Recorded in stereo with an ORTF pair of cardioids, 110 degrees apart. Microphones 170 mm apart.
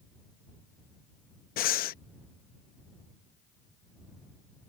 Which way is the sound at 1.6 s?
60° left.